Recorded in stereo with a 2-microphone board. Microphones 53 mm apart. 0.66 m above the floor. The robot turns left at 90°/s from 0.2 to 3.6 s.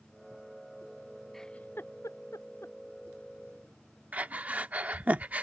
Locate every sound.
1.3 s a giggle: 5° left (ahead or behind); by 2.8 s 50° left (ahead or behind)
4.1 s breathing: 30° right (ahead or behind)